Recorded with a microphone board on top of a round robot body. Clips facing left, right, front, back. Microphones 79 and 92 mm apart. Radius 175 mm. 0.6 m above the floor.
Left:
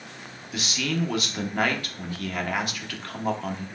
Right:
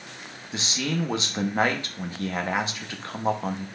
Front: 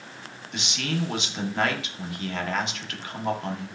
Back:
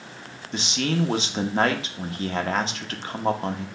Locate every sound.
0.5 s a man speaking: 145° right, 1.1 m